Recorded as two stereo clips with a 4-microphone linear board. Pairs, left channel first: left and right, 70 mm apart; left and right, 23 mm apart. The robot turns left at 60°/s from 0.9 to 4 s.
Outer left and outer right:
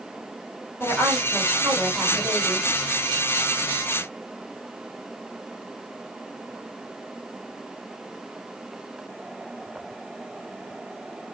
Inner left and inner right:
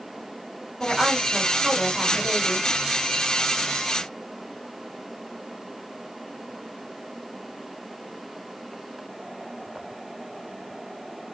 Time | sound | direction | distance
0.8 | a woman speaking | 45° left | 1.6 m